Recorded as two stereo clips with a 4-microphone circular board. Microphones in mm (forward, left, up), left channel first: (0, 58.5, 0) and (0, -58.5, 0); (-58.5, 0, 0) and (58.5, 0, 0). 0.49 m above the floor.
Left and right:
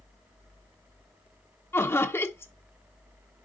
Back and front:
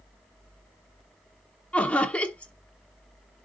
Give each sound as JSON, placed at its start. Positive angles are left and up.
{"t": 1.7, "sound": "laughter", "azimuth_deg": 120, "distance_m": 0.9}